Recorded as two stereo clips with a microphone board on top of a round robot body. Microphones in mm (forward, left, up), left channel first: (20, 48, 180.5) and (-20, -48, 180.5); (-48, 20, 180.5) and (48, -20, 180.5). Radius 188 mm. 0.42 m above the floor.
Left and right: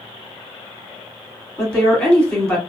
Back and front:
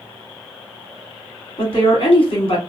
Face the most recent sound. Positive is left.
turn(degrees=150)